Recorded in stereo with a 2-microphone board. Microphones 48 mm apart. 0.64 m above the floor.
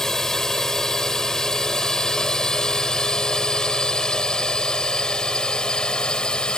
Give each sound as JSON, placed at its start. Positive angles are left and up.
{"t": 0.0, "sound": "a drone", "side_deg": 10}